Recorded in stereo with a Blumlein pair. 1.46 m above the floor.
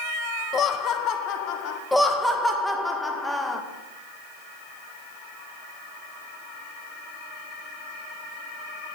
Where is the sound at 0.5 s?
25° left, 1.0 m; by 1.8 s 40° left, 1.7 m.